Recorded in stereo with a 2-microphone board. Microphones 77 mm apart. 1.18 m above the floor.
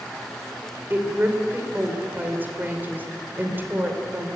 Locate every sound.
0.9 s a woman speaking: 25° right (ahead or behind), 3.5 m